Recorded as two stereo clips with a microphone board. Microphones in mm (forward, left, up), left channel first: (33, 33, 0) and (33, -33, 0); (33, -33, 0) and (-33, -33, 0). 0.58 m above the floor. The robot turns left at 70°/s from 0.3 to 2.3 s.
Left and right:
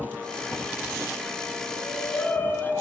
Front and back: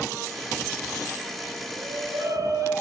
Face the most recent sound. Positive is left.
turn(degrees=150)